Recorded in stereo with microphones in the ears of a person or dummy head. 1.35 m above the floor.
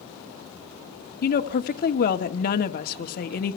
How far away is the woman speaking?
About 1.5 m.